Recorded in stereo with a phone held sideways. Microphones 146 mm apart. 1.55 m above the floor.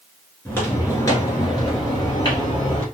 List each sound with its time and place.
0.5 s footsteps: 15° left (ahead or behind), 1.5 m; by 2.8 s 35° left (ahead or behind), 2.5 m